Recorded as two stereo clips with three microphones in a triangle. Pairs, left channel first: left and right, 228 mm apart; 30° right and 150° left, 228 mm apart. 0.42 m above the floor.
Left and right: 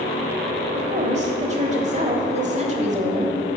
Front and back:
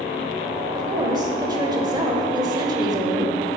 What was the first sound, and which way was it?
A woman speaking, 140° right.